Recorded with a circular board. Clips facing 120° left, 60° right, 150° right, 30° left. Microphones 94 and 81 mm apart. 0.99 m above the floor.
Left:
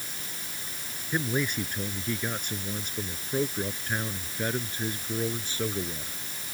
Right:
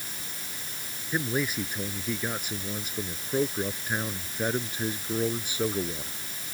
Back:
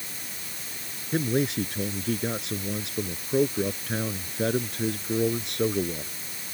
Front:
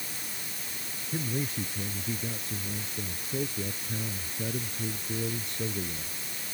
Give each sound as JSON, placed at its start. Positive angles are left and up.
{"t": 1.1, "sound": "a man speaking", "azimuth_deg": -145}